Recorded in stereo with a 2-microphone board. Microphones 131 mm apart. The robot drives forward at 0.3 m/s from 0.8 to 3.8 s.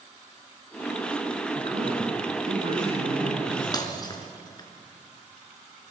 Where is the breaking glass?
30° left (ahead or behind), 2.5 m.